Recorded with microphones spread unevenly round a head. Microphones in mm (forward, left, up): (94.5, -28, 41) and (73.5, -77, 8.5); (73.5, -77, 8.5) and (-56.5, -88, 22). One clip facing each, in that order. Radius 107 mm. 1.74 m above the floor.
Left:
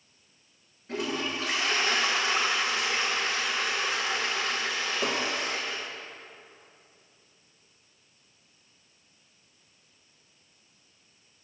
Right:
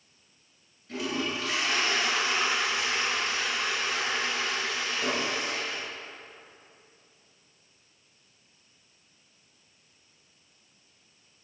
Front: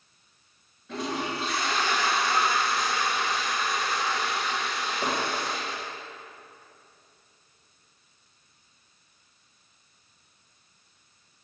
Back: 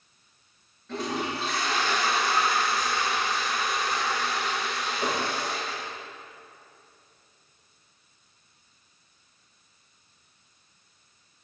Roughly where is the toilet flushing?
Left.